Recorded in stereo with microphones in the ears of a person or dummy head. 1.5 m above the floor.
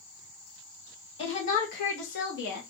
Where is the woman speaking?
35° left (ahead or behind), 1.1 m; by 2.6 s 65° left (ahead or behind), 1.2 m.